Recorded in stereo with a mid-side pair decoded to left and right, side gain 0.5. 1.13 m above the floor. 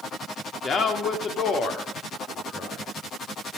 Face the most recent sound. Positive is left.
turn(degrees=70)